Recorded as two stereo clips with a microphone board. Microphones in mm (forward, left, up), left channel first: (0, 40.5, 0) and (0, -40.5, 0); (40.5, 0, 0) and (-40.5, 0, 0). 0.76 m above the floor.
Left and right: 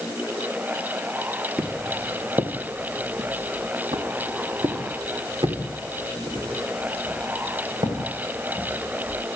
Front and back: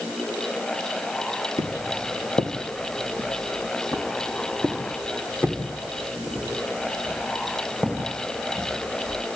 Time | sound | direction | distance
1.6 | footsteps | 20° right | 1.0 m